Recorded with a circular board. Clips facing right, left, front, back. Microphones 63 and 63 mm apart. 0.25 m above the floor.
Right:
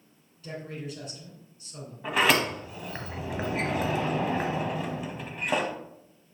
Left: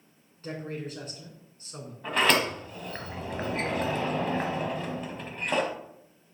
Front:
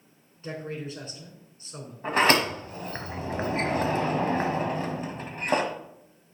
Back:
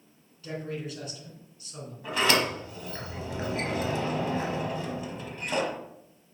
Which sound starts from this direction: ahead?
A sliding door, at 2.0 s.